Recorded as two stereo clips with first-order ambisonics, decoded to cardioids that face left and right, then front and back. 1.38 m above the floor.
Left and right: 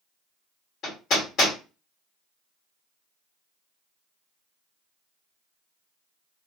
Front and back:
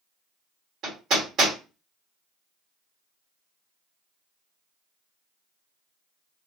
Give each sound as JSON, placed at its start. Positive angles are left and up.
{"t": 0.8, "sound": "hammering", "azimuth_deg": 135, "distance_m": 1.5}